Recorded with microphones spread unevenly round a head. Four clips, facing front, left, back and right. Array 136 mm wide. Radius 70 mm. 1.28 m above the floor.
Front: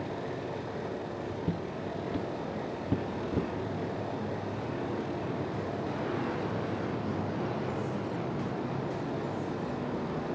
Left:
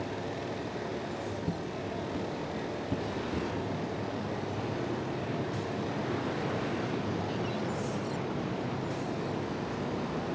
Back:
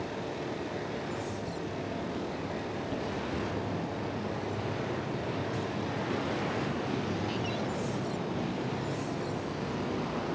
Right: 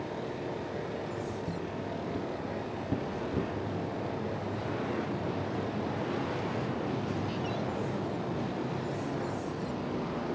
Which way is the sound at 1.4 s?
15° left.